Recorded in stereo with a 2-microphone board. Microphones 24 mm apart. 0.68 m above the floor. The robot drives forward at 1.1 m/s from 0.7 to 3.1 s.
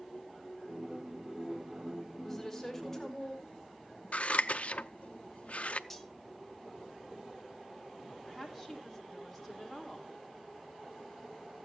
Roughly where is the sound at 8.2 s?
Centre.